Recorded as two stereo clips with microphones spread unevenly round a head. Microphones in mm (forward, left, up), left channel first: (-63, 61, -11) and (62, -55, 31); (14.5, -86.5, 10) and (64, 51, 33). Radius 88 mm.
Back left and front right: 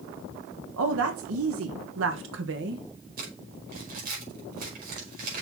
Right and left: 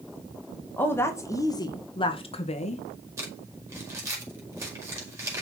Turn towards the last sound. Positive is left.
turn(degrees=0)